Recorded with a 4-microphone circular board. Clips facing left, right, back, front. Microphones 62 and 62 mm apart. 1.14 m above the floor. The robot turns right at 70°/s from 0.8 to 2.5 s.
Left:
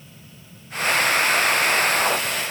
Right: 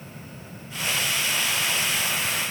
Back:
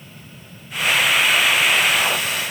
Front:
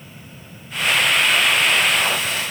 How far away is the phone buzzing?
No phone buzzing in this recording.